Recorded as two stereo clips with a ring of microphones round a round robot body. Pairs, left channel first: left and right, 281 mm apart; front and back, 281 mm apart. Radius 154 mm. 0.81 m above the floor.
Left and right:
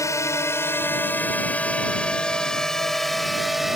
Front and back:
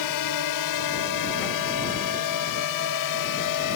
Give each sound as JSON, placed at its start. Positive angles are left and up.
{"t": 0.0, "sound": "a drone", "azimuth_deg": 10}